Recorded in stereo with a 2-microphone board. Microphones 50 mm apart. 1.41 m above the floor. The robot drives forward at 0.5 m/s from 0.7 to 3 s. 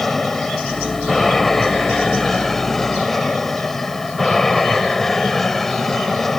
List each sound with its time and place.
0.0 s an aircraft: 5° left (ahead or behind)